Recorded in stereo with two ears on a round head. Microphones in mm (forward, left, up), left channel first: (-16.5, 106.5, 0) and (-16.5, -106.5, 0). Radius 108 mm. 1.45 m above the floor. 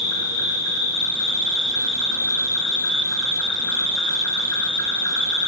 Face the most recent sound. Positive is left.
turn(degrees=80)